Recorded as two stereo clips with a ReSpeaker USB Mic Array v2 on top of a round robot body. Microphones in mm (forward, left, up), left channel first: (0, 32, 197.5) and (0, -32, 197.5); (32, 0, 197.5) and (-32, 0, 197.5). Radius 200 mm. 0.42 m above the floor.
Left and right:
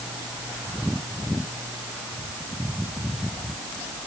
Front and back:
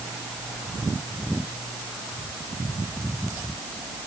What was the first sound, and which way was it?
Only background noise.